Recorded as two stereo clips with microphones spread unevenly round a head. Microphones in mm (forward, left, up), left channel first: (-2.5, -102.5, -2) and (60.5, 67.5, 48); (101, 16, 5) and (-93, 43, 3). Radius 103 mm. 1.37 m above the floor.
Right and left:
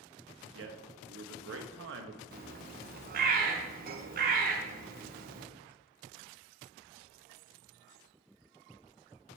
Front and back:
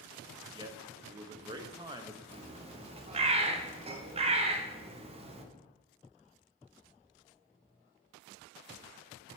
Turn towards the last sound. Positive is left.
turn(degrees=120)